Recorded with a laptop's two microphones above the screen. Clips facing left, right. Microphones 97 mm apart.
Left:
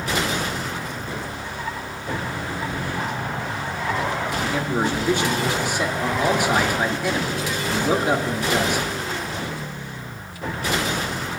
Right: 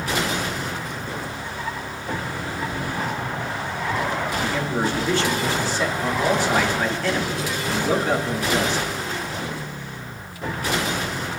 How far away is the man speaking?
About 2.5 m.